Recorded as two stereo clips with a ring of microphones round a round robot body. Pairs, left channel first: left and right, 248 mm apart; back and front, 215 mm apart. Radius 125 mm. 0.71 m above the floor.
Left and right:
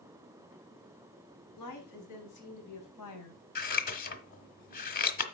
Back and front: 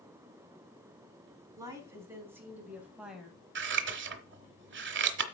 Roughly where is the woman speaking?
Left.